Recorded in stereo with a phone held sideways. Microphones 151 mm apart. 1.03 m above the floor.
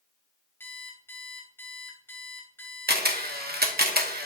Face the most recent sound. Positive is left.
turn(degrees=-80)